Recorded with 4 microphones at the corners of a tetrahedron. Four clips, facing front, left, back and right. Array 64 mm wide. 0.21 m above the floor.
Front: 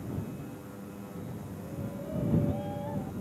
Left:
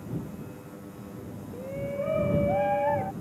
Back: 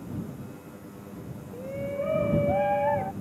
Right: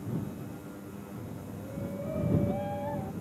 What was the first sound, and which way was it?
A shout, 145° left.